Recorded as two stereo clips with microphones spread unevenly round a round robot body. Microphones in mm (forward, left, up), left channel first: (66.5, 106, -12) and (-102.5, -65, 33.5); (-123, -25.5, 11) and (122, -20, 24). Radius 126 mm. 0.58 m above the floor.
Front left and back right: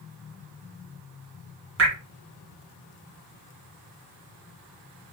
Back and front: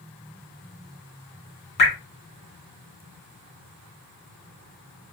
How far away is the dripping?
About 2 m.